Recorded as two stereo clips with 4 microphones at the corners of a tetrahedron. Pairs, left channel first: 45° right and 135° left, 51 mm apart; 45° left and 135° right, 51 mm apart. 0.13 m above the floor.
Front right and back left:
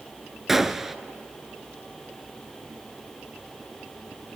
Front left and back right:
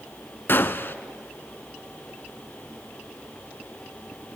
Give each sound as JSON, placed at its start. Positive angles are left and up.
{"t": 0.5, "sound": "a gunshot", "azimuth_deg": 50, "distance_m": 0.8}